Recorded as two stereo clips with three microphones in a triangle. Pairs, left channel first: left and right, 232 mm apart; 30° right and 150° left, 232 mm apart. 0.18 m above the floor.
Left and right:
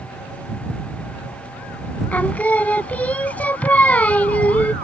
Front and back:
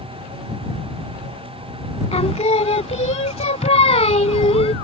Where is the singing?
10° left.